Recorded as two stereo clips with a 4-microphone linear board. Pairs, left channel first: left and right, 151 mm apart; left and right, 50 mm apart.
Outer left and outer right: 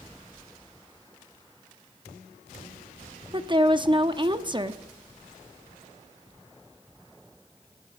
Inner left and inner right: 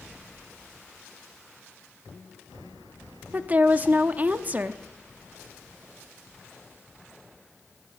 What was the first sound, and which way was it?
A woman speaking, 30° right (ahead or behind).